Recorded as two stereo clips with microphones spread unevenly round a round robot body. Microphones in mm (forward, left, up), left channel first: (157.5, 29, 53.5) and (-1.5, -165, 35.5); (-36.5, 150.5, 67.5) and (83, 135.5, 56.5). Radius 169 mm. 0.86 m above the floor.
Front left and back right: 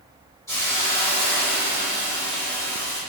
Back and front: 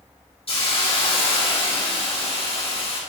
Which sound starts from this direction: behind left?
A hiss, at 0.5 s.